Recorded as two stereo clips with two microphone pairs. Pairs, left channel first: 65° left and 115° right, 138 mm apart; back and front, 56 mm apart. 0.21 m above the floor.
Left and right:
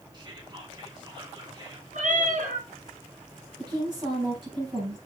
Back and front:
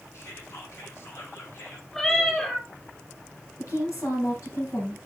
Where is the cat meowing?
100° right, 3.5 m.